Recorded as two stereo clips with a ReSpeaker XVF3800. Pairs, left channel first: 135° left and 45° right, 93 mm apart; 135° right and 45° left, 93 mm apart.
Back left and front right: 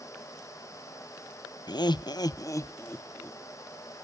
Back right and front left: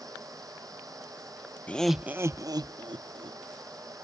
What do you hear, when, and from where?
1.7 s laughter: 155° left, 0.6 m; by 3.4 s 65° left, 1.4 m